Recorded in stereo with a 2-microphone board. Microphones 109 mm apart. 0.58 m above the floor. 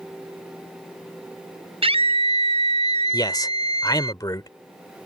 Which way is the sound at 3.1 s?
40° left (ahead or behind).